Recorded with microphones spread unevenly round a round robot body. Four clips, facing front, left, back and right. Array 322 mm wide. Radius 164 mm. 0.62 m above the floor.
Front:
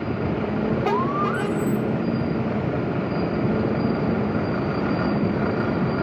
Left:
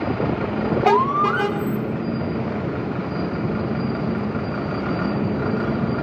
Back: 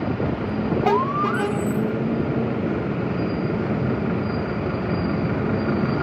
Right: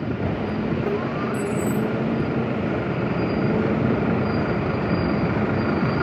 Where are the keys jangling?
120° right, 1.5 m.